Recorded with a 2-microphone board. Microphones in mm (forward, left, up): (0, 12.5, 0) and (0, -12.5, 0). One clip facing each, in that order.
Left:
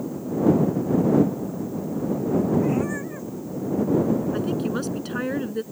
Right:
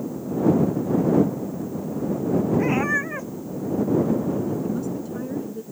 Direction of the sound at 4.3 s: 70° left (ahead or behind).